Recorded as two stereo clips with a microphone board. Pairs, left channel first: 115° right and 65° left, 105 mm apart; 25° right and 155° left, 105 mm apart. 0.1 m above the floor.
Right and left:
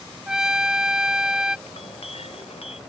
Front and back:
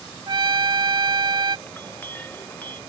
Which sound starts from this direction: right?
A clink, at 1.7 s.